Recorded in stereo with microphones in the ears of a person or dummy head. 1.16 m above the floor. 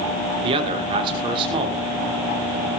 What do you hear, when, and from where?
0.4 s a man speaking: 30° right (ahead or behind), 2.5 m